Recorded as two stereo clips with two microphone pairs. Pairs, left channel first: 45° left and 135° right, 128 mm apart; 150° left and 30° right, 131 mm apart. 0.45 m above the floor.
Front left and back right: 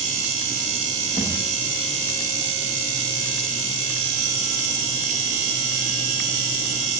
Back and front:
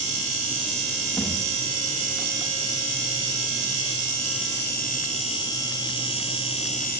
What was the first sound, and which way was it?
A thud, 85° left.